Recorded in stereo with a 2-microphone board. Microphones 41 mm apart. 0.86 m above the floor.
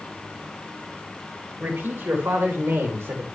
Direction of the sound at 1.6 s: 80° right.